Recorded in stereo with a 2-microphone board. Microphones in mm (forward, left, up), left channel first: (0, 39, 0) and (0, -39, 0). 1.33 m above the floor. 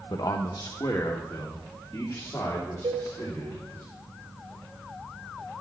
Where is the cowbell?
80° right, 4.5 m.